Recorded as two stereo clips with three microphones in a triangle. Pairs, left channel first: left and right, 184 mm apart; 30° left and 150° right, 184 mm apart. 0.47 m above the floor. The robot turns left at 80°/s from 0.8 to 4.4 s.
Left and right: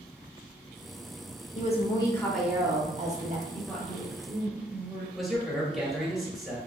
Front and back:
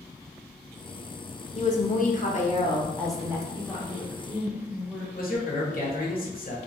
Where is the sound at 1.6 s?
65° left, 1.0 m; by 3.4 s 85° right, 1.0 m.